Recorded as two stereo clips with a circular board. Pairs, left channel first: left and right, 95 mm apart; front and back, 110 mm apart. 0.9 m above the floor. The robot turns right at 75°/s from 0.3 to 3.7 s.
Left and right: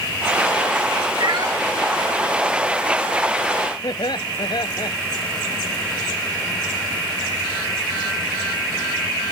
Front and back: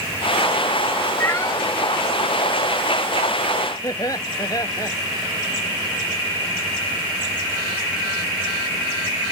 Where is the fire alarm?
No fire alarm in this recording.